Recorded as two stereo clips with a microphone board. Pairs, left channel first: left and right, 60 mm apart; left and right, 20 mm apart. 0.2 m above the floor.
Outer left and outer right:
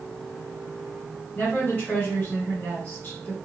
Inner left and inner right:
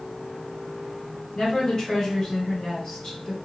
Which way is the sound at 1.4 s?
35° left (ahead or behind).